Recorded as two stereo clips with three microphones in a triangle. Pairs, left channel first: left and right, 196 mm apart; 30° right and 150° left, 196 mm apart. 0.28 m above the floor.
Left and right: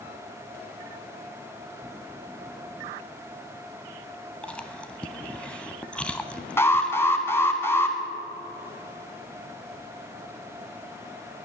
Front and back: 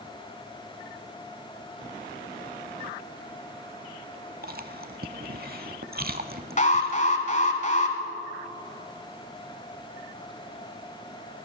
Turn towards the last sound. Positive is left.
turn(degrees=15)